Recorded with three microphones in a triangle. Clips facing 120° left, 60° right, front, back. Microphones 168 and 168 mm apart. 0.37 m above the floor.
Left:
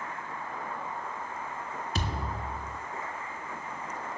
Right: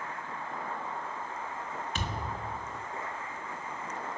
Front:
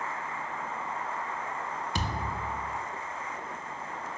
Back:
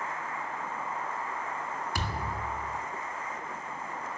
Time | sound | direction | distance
1.9 | a thud | 70° left | 1.3 m